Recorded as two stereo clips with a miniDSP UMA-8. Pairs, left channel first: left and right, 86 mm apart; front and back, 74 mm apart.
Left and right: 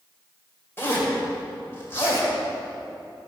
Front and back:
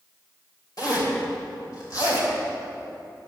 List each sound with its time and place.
0.8 s a zipper: 30° left, 3 m